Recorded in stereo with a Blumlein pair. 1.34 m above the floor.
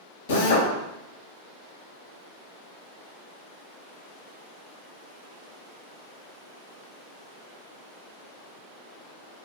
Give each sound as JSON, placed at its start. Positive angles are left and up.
{"t": 0.3, "sound": "a drill", "azimuth_deg": 55, "distance_m": 1.0}